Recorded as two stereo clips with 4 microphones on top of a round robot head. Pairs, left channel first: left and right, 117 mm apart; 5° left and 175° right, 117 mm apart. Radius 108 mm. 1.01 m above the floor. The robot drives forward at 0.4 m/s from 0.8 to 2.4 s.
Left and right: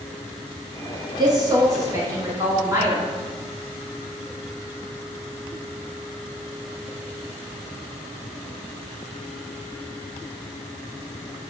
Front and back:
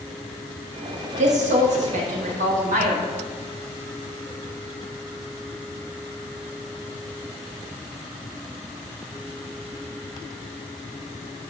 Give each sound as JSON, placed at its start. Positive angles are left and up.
{"t": 1.2, "sound": "a woman speaking", "azimuth_deg": -145, "distance_m": 0.8}